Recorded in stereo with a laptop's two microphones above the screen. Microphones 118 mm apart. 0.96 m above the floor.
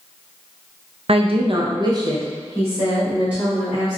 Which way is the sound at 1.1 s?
55° right (ahead or behind).